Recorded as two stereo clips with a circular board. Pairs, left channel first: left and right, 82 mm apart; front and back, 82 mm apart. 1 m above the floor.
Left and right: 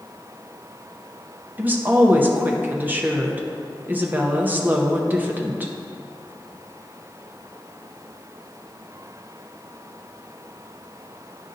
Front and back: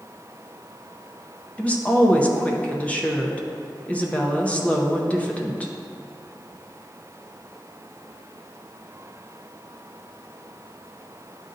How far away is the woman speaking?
About 0.6 m.